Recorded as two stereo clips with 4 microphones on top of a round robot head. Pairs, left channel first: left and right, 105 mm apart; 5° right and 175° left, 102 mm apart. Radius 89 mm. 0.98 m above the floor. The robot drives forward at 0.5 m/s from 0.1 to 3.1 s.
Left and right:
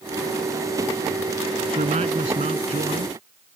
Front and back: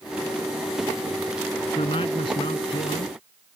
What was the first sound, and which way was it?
A man speaking, 55° right.